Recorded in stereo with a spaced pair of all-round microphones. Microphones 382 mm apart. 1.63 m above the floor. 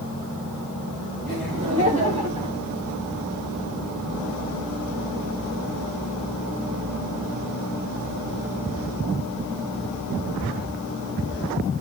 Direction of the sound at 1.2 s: 20° right (ahead or behind).